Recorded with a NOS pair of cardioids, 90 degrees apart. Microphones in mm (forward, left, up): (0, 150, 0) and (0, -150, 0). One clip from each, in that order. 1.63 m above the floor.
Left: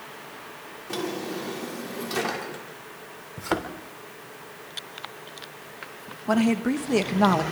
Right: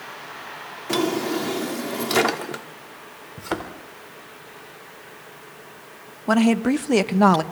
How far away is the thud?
About 3 m.